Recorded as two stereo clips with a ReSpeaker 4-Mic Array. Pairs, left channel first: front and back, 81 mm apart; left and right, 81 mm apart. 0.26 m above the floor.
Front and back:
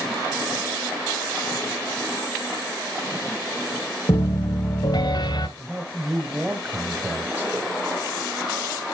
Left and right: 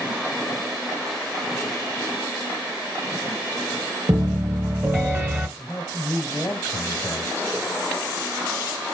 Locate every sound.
4.1 s a piano: 30° right, 1.5 m
5.6 s a man speaking: 125° left, 1.1 m